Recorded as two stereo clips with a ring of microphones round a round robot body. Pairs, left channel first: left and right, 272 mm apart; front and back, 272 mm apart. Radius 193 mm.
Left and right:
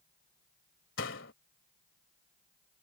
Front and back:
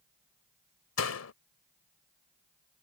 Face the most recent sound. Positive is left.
turn(degrees=30)